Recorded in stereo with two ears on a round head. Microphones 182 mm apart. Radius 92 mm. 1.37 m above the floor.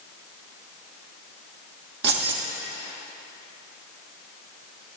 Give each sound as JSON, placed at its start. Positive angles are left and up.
{"t": 2.0, "sound": "keys jangling", "side_deg": -65, "distance_m": 1.7}